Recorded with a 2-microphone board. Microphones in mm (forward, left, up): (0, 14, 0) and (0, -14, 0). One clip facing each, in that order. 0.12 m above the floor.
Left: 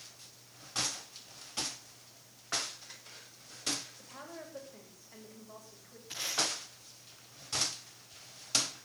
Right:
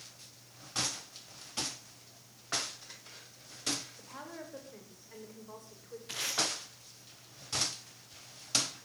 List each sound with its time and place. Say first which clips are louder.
4.0 s a woman speaking: right 1 dB; 55° right (ahead or behind), 9 m
6.1 s tape being pulled: right 1 dB; 85° right, 9 m